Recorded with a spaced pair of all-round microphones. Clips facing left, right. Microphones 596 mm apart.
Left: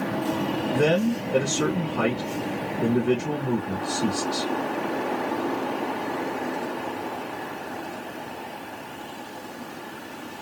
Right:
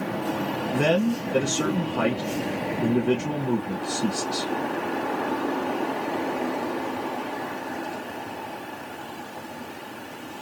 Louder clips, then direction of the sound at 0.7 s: Even; centre (ahead or behind).